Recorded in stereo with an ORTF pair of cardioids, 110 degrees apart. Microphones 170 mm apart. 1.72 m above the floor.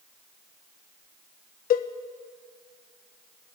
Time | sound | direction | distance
1.7 | a cowbell | 60° left | 1.5 m